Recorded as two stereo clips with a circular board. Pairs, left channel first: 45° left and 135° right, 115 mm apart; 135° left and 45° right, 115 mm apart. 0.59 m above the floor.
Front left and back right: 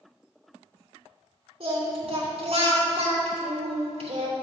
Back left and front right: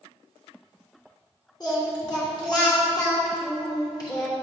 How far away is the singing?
About 2.5 m.